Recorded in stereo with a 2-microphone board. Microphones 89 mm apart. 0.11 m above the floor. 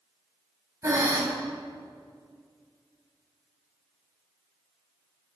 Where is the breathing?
35° right (ahead or behind), 1.1 m.